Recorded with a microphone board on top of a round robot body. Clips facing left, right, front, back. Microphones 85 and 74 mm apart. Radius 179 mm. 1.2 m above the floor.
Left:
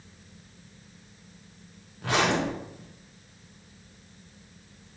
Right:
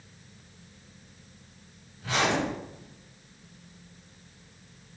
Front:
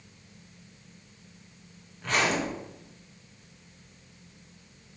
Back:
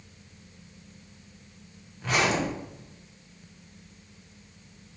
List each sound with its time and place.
2.0 s a zipper: 95° left, 1.1 m